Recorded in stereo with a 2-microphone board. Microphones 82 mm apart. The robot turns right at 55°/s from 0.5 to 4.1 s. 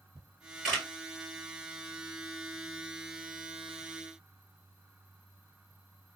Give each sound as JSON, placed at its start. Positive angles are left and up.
{"t": 0.1, "sound": "a camera shutter", "side_deg": -10, "distance_m": 3.0}